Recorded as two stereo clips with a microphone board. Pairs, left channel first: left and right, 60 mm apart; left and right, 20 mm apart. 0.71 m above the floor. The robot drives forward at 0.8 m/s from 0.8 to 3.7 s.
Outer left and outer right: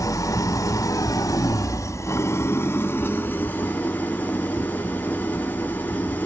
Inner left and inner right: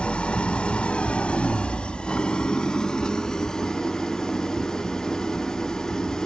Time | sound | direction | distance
0.0 | an engine running | 65° left (ahead or behind) | 1.1 m